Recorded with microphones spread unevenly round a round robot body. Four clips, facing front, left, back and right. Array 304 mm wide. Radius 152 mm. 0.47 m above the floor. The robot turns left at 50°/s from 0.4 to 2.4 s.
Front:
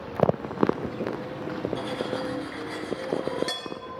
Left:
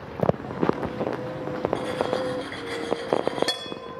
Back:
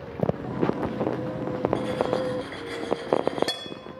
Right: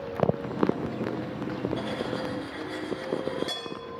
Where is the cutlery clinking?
130° left, 5 m; by 3.7 s 100° left, 5 m.